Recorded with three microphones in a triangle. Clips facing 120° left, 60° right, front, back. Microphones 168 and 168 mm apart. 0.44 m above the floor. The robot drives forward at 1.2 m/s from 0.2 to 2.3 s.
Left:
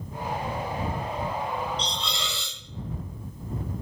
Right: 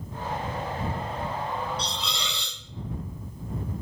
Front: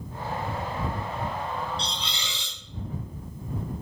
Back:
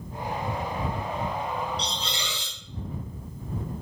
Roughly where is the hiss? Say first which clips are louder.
Left 1 dB, back 2 dB; behind right.